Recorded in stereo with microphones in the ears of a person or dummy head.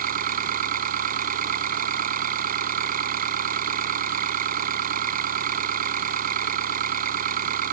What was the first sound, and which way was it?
An engine running, 50° right (ahead or behind).